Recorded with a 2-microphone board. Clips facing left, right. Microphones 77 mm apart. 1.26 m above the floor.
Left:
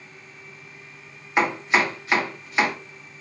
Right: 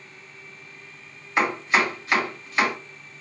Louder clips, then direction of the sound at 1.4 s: Left 1 dB; 15° left (ahead or behind).